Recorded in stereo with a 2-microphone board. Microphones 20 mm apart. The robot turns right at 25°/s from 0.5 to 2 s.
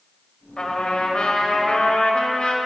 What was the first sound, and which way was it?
A trumpet, 55° left.